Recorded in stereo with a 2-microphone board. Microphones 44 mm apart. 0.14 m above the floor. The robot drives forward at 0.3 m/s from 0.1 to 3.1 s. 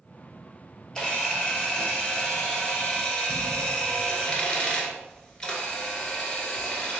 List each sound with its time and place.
0.9 s a camera shutter: 15° left (ahead or behind), 1.9 m; by 7.0 s 20° left (ahead or behind), 1.3 m